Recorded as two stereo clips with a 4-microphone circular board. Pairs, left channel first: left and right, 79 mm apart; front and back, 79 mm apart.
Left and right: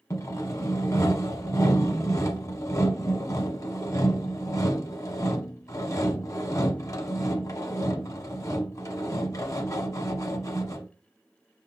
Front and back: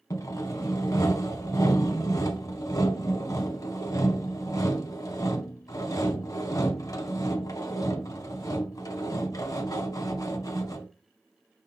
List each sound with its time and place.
0.1 s sawing: 45° left, 0.6 m